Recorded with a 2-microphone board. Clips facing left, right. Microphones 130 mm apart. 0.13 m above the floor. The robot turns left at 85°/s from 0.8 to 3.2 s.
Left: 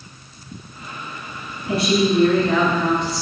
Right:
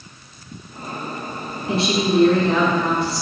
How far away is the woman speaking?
About 1.7 m.